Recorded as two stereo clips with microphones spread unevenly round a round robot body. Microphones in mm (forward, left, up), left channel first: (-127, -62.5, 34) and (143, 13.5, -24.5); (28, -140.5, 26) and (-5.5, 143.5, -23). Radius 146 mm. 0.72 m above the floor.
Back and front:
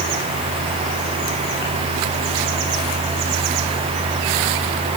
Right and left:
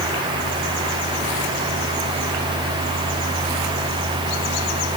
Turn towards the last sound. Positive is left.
No sound to turn to.